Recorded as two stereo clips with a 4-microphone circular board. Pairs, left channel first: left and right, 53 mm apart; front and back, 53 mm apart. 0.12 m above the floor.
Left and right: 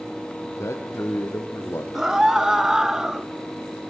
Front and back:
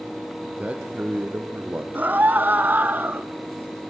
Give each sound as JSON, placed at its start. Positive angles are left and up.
{"t": 0.4, "sound": "a man speaking", "azimuth_deg": 115, "distance_m": 4.0}
{"t": 1.9, "sound": "a scream", "azimuth_deg": -160, "distance_m": 1.2}